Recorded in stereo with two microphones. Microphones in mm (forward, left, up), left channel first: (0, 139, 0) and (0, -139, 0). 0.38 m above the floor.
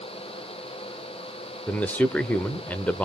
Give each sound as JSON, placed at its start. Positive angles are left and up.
{"t": 1.7, "sound": "a man speaking", "side_deg": 5, "distance_m": 1.0}